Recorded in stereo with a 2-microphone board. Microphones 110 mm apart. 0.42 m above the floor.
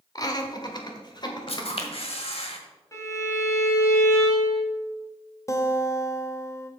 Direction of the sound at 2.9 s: 30° left (ahead or behind).